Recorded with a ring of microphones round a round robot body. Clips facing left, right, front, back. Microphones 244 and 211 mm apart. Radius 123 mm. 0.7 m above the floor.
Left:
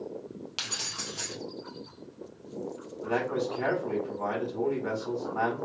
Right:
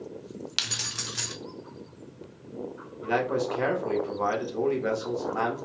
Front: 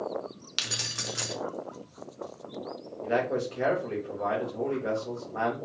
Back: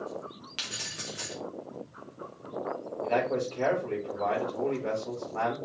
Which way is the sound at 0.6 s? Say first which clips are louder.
Right 1 dB, front 4 dB; 35° right.